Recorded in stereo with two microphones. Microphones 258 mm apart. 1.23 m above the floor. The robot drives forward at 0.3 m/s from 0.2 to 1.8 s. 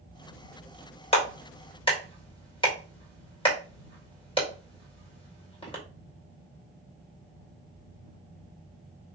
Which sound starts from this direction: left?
A clap, at 1.1 s.